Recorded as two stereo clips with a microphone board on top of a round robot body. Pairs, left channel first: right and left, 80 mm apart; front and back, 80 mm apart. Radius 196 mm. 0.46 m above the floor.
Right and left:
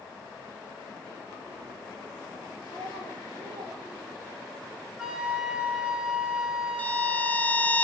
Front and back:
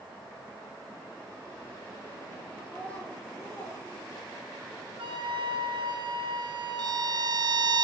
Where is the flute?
170° left, 3.5 m.